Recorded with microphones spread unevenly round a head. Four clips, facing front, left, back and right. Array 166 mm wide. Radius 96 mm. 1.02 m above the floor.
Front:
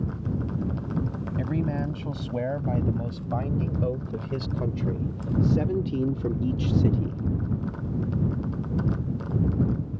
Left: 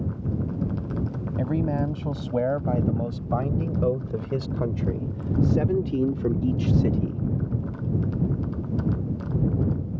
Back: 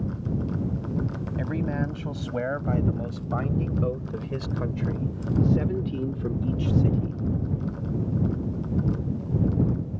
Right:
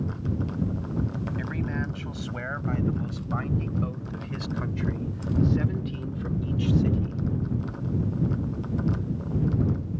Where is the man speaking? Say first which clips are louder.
Left 10 dB, even; 100° left; by 7.2 s 80° left.